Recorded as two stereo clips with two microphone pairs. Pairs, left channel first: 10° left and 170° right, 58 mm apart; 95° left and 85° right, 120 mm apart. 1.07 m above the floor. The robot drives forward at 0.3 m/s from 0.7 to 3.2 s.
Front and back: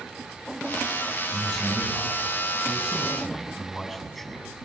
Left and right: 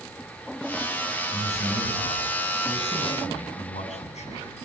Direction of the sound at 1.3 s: 100° left.